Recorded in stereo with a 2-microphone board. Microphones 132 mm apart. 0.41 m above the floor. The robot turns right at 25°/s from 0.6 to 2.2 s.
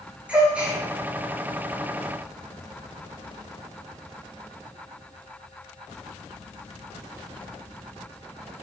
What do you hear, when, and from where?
0.3 s a gasp: 10° right (ahead or behind), 4 m; by 0.8 s 5° right (ahead or behind), 4 m